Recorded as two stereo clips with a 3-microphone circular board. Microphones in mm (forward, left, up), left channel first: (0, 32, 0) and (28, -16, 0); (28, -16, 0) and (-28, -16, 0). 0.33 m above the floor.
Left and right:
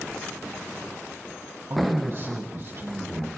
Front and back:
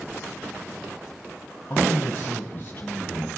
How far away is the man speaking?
About 3 m.